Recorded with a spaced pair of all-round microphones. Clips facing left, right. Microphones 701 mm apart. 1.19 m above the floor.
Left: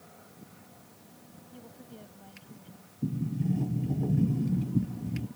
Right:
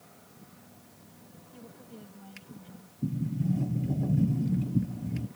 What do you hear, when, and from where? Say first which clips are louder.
1.5 s a woman speaking: right 1 dB; 40° right (ahead or behind)
3.0 s a sliding door: even; 5° right (ahead or behind)